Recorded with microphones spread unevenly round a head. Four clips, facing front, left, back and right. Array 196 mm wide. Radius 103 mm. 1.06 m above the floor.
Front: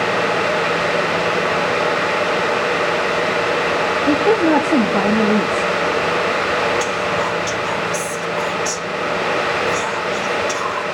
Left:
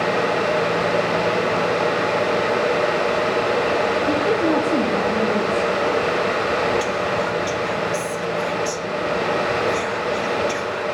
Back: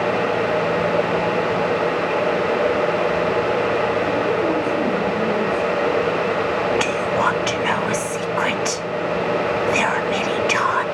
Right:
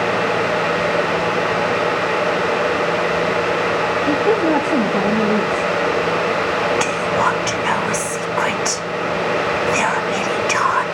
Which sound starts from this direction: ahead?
A woman speaking, at 4.1 s.